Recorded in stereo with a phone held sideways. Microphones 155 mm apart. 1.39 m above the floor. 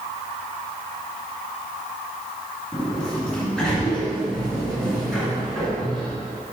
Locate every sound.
2.7 s a sliding door: 5° left (ahead or behind), 2.5 m